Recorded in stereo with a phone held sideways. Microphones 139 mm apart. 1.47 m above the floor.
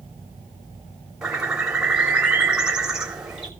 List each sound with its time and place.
1.2 s a bird: 5° right (ahead or behind), 3 m